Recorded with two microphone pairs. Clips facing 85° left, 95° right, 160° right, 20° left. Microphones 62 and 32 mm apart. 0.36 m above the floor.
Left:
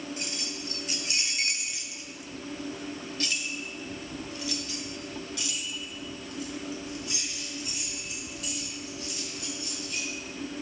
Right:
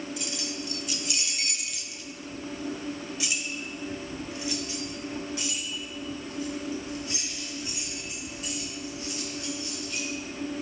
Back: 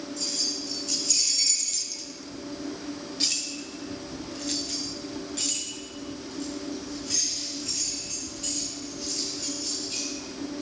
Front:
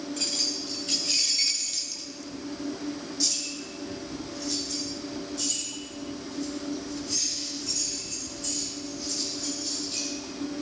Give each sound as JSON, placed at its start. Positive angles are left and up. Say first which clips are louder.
{"t": 0.2, "sound": "keys jangling", "louder": "right 2 dB, front 1 dB", "azimuth_deg": 40, "distance_m": 1.8}